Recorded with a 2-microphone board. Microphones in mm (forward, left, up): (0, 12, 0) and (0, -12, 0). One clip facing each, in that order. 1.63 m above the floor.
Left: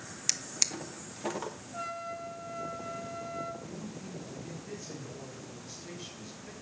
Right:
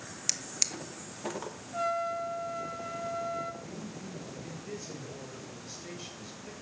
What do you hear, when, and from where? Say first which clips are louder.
0.3 s a drawer: left 1 dB; 5° left (ahead or behind), 0.8 m
1.7 s a trumpet: right 9 dB; 25° right (ahead or behind), 1.4 m
3.6 s a man speaking: even; 40° right (ahead or behind), 7 m